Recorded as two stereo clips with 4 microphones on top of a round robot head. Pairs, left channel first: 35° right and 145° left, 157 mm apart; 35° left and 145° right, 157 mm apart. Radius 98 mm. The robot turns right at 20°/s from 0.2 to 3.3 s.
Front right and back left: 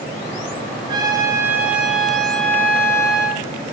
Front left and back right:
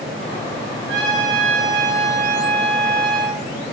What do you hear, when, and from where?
0.9 s a trumpet: 155° right, 10 m; by 3.4 s 105° right, 10 m